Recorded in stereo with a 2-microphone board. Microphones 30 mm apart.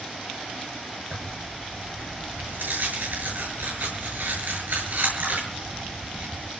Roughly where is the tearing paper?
Right.